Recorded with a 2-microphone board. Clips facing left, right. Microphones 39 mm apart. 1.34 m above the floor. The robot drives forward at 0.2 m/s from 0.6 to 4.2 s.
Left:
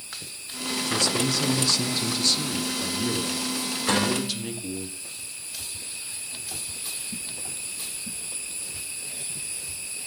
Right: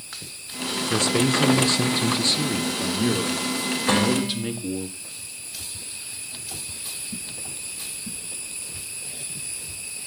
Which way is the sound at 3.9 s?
15° right (ahead or behind).